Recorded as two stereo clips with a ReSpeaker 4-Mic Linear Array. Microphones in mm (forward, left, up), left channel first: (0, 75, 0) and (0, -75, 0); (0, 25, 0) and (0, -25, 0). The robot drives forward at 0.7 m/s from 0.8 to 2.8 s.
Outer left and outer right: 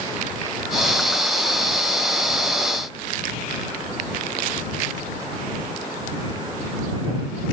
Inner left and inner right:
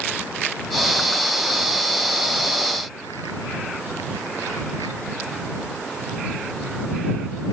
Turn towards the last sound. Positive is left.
No sound to turn to.